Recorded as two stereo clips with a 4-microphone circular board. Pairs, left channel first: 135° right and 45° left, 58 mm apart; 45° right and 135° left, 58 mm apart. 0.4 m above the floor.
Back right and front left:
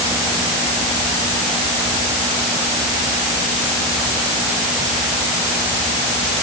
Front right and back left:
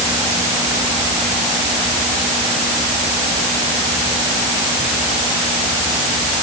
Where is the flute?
I don't hear a flute.